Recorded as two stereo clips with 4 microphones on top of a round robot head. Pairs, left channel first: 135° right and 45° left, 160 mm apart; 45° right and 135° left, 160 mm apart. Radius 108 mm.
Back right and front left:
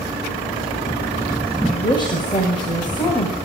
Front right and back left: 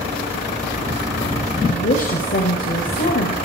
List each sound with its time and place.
1.6 s a woman speaking: 75° right, 2 m